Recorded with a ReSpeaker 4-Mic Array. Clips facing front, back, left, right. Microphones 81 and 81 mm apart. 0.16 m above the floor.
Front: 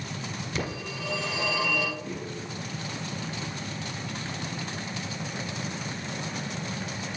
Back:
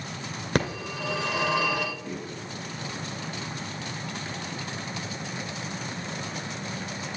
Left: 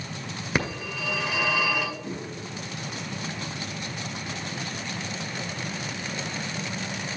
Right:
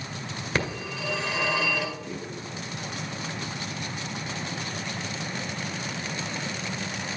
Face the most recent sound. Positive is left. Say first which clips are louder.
# even, left 1 dB
turn(degrees=95)